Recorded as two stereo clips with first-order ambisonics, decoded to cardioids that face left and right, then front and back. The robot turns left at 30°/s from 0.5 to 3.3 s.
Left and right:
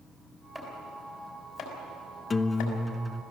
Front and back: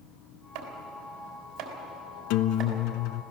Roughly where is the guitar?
Ahead.